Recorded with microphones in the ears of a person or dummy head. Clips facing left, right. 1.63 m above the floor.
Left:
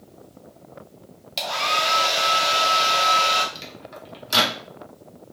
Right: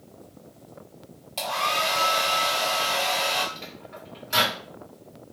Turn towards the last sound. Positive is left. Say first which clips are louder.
# left 2 dB
turn(degrees=55)  # may be behind; listen again after turning